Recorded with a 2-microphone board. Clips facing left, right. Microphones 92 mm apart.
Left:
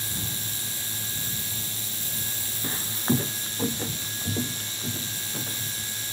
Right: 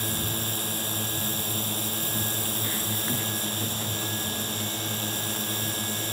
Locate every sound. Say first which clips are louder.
0.0 s a drone: right 6 dB; 50° right (ahead or behind)
2.6 s footsteps: left 9 dB; 20° left (ahead or behind); by 5.8 s 55° left (ahead or behind)